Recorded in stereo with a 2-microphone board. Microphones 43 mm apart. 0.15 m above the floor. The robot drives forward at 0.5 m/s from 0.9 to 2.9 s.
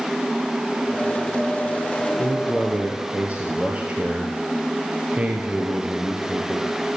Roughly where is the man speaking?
Right.